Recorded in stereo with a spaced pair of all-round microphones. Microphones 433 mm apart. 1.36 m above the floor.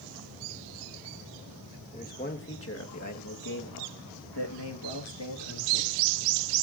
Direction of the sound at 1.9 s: 15° left (ahead or behind).